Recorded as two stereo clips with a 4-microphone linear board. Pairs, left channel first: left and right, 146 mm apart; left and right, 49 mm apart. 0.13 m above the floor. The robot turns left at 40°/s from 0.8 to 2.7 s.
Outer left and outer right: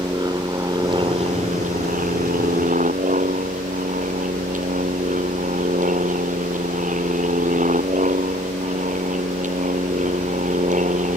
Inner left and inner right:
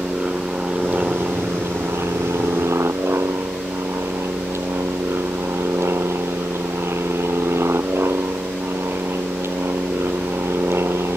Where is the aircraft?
30° right (ahead or behind); by 11.2 s 60° right (ahead or behind).